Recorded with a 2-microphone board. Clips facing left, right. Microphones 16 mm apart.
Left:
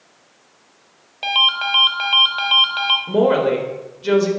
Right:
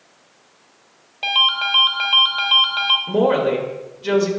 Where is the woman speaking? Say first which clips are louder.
Left 1 dB; 5° left (ahead or behind), 1.0 m.